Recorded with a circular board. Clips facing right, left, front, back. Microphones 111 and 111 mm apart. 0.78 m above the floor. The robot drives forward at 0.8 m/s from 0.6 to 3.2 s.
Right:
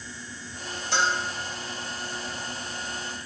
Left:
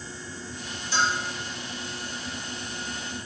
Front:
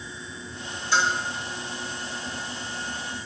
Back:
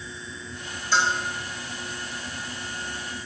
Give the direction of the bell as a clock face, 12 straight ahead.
3 o'clock.